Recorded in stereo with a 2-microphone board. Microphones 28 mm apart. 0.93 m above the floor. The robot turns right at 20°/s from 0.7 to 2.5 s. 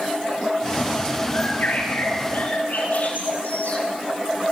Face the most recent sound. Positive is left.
turn(degrees=75)  # may be behind; listen again after turning